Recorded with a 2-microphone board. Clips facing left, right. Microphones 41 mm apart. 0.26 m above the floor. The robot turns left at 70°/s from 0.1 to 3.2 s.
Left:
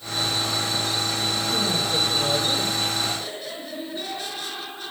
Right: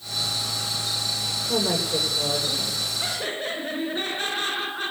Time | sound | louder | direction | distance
1.5 | a woman speaking | right 3 dB | 135° right | 10 m
3.0 | laughter | even | 30° right (ahead or behind) | 4 m